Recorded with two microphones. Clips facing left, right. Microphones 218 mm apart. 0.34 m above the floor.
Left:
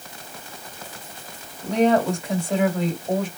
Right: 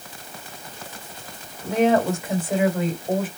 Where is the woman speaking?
5° right (ahead or behind), 1.6 m.